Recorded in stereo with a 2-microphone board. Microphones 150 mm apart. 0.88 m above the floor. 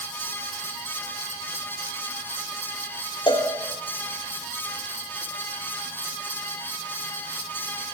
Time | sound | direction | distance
3.3 | a cowbell | 30° left (ahead or behind) | 2 m